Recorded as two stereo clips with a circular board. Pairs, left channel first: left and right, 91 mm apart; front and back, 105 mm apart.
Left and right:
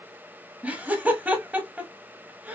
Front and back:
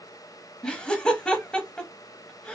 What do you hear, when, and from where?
0.6 s laughter: 65° right, 1.0 m